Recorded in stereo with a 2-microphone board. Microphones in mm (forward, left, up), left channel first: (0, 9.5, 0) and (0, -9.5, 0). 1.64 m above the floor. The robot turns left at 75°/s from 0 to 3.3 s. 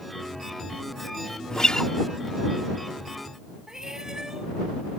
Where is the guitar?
115° left; by 1.9 s 85° left.